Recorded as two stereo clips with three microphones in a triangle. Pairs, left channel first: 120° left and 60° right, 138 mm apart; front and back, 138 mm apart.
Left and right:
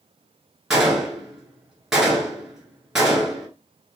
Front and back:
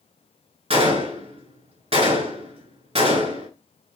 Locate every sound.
0.7 s a gunshot: 150° right, 1.6 m